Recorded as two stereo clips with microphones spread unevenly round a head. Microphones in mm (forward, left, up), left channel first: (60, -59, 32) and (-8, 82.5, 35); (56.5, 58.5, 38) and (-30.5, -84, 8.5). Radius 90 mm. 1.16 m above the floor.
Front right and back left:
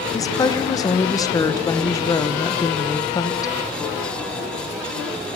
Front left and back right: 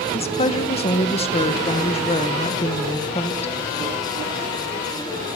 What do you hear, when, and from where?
0.1 s a woman speaking: straight ahead, 1.1 m